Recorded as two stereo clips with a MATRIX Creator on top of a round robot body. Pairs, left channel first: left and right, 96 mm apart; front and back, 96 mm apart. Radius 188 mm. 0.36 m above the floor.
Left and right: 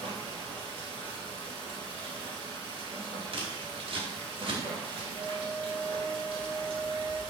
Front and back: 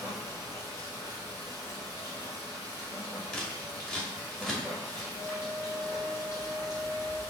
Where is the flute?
40° right, 2 m.